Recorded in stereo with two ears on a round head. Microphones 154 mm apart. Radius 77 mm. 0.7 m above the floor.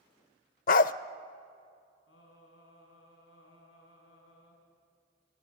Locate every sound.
0.7 s a dog barking: 50° left (ahead or behind), 0.5 m
2.1 s singing: 85° left, 4.5 m